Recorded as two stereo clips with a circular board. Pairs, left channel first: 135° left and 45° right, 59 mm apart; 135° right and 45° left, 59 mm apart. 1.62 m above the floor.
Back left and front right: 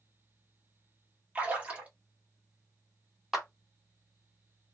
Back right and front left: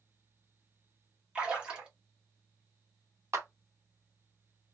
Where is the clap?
40° left, 1.0 m.